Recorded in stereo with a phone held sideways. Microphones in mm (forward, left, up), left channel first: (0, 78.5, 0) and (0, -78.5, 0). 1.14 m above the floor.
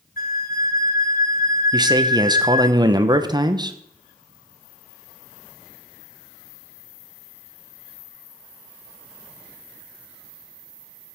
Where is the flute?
65° left (ahead or behind), 0.7 m.